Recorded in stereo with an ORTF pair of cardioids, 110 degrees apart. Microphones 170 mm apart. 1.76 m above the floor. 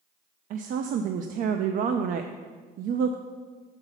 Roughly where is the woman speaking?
Ahead right.